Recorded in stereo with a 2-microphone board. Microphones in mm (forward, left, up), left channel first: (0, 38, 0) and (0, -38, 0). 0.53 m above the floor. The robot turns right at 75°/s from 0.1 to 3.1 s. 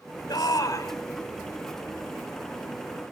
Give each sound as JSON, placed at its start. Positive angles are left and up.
{"t": 0.3, "sound": "a shout", "azimuth_deg": 85, "distance_m": 2.5}